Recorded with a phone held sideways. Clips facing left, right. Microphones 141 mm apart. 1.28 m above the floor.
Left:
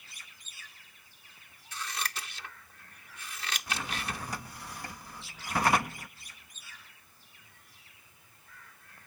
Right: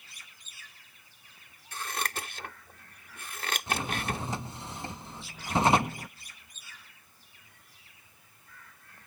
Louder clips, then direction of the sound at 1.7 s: Right 3 dB; 50° right (ahead or behind).